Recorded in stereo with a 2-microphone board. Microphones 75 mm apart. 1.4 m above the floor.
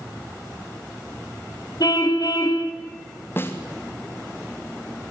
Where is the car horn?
60° left (ahead or behind), 3.5 m.